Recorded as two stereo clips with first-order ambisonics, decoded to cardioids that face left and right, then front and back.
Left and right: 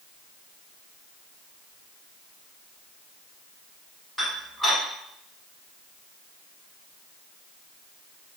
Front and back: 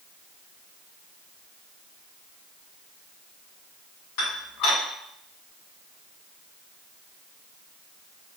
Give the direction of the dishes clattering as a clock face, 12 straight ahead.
12 o'clock.